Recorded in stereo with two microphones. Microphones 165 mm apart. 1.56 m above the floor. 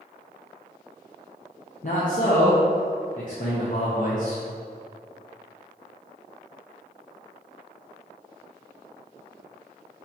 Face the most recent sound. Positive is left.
turn(degrees=55)  # may be behind; listen again after turning